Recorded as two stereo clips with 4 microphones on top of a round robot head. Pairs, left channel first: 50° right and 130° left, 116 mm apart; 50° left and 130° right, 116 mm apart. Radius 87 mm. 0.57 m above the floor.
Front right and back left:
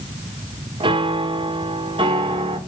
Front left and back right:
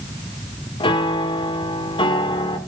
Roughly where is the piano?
Left.